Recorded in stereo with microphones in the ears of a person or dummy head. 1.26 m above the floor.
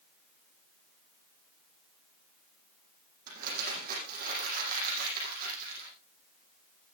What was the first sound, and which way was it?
Crumpling, 50° right (ahead or behind).